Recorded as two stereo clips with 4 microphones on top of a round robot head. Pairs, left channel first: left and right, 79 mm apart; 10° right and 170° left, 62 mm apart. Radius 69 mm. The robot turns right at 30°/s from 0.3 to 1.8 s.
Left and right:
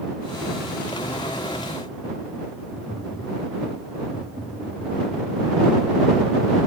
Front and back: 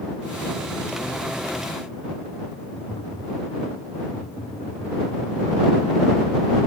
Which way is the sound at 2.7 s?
10° right.